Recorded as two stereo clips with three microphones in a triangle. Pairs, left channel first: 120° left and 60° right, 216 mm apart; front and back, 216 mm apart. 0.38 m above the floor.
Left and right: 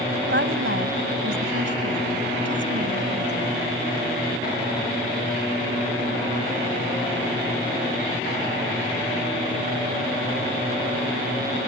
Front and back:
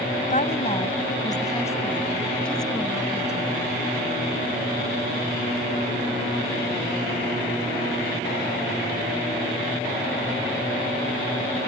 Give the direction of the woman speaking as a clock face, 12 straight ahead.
2 o'clock.